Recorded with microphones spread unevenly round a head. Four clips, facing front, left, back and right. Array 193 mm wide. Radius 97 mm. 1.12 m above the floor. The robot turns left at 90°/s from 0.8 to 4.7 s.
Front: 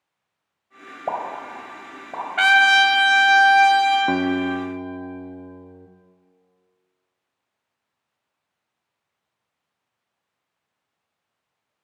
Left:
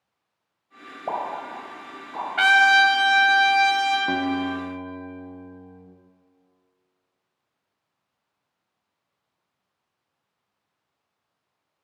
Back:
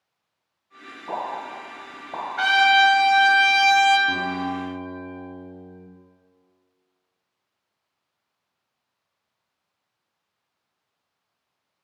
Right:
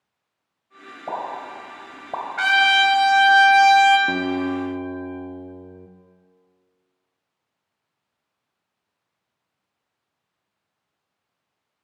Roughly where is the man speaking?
I don't hear a man speaking.